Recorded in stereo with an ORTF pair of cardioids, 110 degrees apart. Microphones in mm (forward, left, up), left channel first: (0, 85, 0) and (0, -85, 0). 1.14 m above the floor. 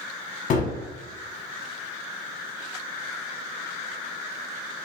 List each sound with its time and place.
0.5 s a gunshot: 50° left, 0.7 m